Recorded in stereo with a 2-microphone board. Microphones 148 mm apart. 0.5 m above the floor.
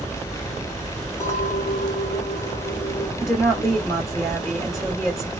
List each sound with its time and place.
1.2 s a clink: 20° left (ahead or behind), 1.8 m
3.2 s a woman speaking: 20° left (ahead or behind), 2 m